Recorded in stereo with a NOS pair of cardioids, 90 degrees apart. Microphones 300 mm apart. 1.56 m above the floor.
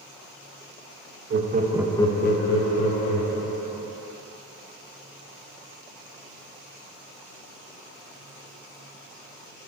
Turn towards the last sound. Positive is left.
turn(degrees=80)